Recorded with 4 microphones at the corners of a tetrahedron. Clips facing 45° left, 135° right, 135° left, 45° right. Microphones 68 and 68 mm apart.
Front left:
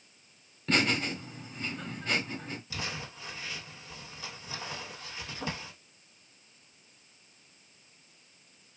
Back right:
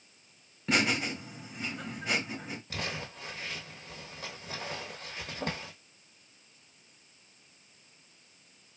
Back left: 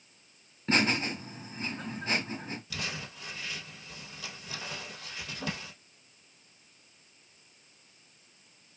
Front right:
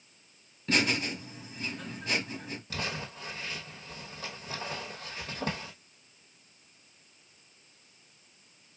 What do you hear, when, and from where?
0.7 s laughter: 155° left, 1.2 m
2.7 s crumpling: 95° right, 1.2 m